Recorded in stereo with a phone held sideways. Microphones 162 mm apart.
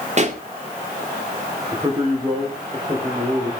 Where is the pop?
45° right (ahead or behind), 2 m.